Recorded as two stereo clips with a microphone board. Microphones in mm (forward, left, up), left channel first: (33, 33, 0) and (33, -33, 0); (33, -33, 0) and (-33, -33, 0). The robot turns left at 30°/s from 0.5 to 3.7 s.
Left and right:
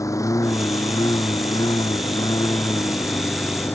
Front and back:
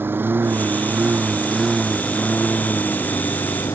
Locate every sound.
0.0 s a lawn mower: 125° left; by 3.8 s 30° left